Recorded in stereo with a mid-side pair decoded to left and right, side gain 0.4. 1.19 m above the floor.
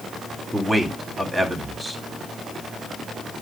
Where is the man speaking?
15° right, 3 m.